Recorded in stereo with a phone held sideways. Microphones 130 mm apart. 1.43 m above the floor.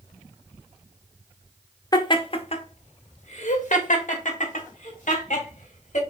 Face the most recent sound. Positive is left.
turn(degrees=75)  # may be behind; listen again after turning